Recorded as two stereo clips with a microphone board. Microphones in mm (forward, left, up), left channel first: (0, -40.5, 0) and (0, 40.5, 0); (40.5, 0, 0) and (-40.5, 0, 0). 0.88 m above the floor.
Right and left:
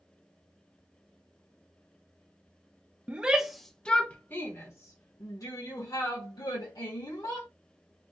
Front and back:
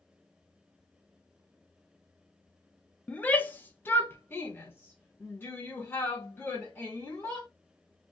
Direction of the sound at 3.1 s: 45° left.